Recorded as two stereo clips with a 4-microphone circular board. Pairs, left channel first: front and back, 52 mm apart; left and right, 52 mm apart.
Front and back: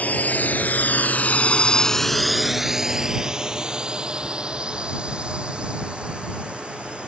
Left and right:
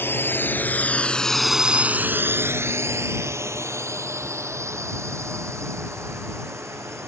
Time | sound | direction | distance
0.0 | a drone | 55° left | ?